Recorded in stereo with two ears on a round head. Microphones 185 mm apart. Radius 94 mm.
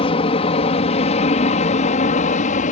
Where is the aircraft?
25° left (ahead or behind); by 2.7 s 35° left (ahead or behind).